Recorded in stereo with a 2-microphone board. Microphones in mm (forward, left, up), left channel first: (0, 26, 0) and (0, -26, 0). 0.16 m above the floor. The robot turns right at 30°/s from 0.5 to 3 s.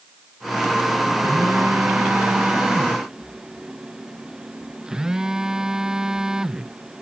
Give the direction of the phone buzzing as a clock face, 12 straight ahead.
2 o'clock.